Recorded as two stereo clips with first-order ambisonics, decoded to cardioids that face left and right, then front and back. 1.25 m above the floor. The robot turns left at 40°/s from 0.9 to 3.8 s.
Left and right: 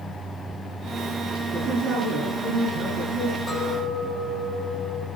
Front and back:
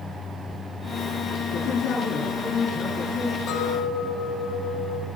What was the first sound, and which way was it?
A woman speaking, 15° right.